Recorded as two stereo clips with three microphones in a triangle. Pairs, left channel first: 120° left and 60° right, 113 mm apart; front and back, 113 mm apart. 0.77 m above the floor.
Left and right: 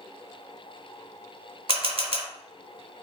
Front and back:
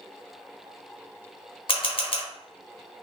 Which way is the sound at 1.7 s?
35° right.